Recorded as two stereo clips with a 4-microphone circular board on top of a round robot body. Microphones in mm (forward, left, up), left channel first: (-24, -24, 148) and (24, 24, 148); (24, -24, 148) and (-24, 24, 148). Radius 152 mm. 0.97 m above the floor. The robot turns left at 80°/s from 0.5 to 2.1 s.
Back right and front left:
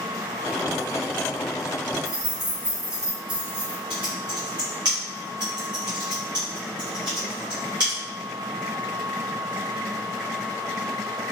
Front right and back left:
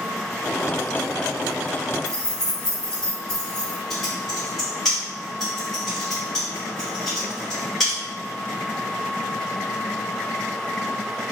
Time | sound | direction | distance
2.0 | keys jangling | 40° left | 1.3 m
3.9 | typing on a keyboard | 40° left | 0.5 m